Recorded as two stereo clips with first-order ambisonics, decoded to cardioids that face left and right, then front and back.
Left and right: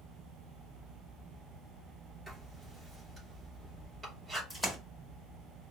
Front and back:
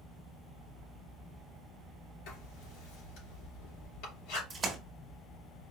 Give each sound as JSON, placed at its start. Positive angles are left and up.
{"t": 2.3, "sound": "writing", "azimuth_deg": -15, "distance_m": 3.0}
{"t": 4.5, "sound": "a splash", "azimuth_deg": 175, "distance_m": 1.0}